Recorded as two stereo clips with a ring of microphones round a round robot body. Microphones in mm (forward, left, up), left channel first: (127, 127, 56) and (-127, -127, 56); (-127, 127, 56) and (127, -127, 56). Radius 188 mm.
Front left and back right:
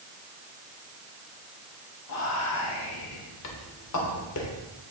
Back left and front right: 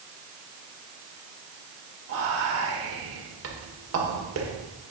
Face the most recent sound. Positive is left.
turn(degrees=5)